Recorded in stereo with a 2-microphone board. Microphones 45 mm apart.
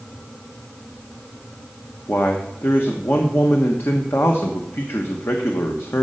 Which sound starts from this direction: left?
A man speaking, at 2.1 s.